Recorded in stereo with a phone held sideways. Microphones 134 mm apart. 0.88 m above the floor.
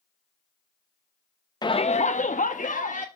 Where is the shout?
35° left (ahead or behind), 0.5 m; by 3.0 s 70° left (ahead or behind), 1.6 m.